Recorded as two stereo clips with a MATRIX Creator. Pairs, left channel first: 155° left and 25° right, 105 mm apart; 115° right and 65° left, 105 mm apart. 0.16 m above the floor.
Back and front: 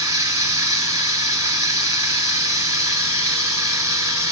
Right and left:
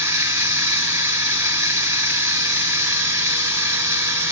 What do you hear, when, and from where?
0.0 s running water: 25° left, 1.5 m